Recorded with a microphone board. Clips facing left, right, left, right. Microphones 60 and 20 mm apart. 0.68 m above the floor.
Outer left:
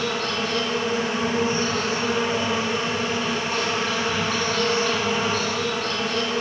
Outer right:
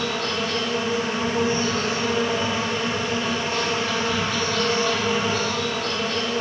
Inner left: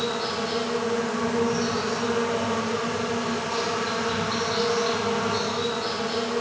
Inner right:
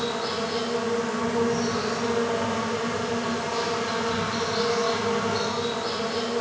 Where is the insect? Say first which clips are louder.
Even, inner left 1 dB; 65° left (ahead or behind), 2.5 m.